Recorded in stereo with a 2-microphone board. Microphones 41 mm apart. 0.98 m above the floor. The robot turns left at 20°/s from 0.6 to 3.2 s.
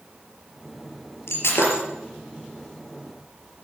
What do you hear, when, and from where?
1.3 s breaking glass: 85° left, 5 m; by 1.8 s 75° left (ahead or behind), 5 m